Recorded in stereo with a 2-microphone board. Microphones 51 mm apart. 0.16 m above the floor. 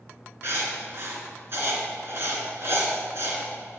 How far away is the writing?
About 2.5 m.